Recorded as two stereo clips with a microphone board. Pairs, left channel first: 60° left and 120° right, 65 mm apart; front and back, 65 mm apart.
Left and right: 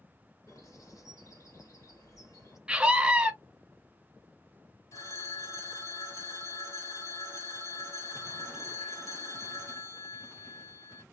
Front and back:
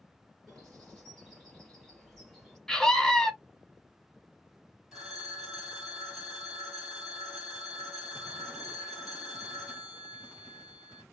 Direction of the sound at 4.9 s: 90° left.